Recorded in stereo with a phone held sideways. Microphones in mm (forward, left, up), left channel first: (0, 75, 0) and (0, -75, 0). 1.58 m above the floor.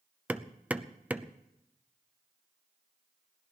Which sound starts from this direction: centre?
Hammering, at 0.3 s.